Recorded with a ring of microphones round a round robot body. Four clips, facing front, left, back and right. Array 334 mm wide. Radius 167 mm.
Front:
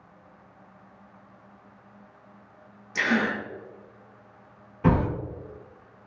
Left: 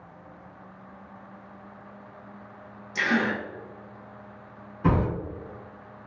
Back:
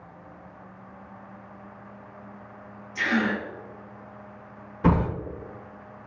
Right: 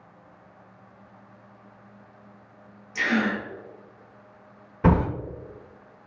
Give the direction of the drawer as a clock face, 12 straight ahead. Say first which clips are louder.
Right 3 dB, even; 3 o'clock.